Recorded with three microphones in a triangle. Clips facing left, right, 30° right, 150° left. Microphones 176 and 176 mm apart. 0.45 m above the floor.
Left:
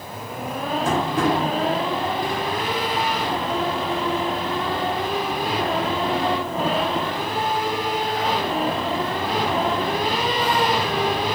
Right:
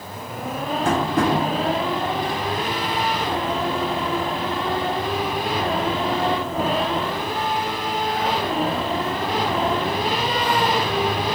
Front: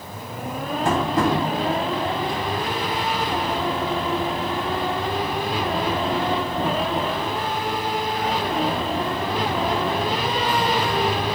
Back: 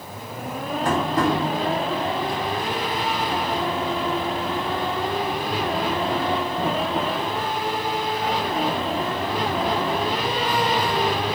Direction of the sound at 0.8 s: 95° right.